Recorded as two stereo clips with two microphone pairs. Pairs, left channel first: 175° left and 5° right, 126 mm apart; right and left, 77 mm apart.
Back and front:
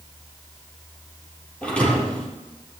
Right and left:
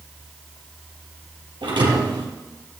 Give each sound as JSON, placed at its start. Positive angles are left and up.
{"t": 1.6, "sound": "a thud", "azimuth_deg": 95, "distance_m": 4.5}